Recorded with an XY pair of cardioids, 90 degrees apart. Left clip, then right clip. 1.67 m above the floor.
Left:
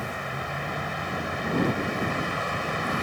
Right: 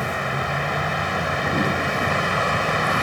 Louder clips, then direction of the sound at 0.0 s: Right 7 dB; 60° right.